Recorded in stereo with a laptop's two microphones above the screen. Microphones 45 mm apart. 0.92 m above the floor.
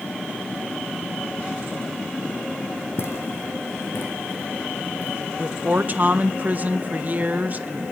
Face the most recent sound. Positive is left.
turn(degrees=-40)  # may be behind; listen again after turning